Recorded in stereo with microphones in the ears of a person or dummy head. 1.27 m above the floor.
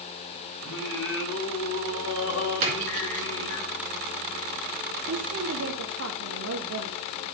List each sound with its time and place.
0.6 s singing: 75° left (ahead or behind), 1.7 m
2.6 s a splash: 45° right (ahead or behind), 2.5 m
5.1 s a woman speaking: 70° right (ahead or behind), 0.9 m